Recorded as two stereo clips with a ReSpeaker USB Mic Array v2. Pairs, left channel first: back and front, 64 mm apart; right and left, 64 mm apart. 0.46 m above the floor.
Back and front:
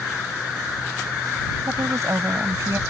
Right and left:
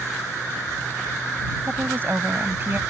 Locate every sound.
1.7 s a woman speaking: 35° left